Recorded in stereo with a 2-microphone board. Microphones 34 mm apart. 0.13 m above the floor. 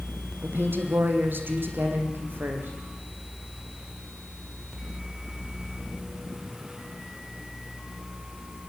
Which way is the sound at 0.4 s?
75° right (ahead or behind).